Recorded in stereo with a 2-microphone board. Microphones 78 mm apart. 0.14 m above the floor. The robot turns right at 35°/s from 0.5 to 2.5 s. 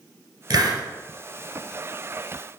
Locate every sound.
0.5 s a hiss: 50° right (ahead or behind), 1.9 m; by 0.8 s 60° right (ahead or behind), 1.9 m